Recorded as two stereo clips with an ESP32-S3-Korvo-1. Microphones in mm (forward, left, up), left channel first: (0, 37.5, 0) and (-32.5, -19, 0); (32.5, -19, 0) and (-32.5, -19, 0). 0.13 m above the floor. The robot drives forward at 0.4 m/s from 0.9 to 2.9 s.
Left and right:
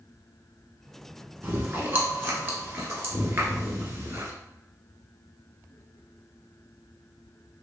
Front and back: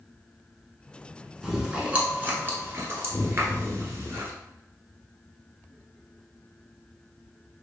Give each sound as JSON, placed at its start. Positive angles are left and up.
{"t": 1.4, "sound": "chewing", "azimuth_deg": -100, "distance_m": 0.8}